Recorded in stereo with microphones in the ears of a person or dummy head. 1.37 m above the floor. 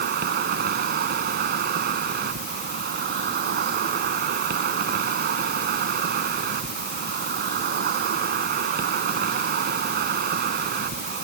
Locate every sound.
0.0 s an insect: 55° right (ahead or behind)